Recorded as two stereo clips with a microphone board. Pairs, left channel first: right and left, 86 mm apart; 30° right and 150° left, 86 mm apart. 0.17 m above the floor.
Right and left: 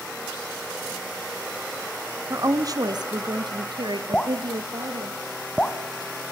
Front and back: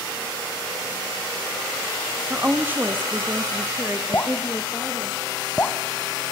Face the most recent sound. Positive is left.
turn(degrees=-30)